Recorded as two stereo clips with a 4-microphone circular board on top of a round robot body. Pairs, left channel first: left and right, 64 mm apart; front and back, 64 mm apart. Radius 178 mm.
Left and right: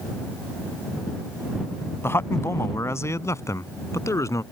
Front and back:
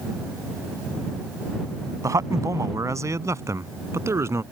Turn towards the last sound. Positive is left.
turn(degrees=135)